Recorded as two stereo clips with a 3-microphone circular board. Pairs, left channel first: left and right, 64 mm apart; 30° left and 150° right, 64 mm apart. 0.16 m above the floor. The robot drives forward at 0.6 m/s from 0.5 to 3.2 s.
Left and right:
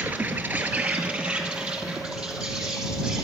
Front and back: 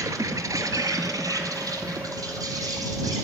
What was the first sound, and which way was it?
An insect, 150° right.